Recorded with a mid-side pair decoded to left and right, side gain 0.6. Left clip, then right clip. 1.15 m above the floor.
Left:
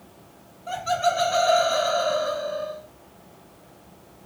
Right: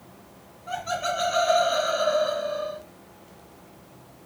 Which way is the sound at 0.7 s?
50° left.